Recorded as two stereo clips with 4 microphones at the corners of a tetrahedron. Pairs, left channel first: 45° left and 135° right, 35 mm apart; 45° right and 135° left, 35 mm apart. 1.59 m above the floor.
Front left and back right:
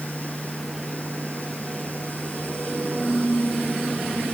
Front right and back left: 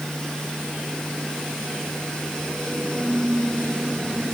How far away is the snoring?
I don't hear snoring.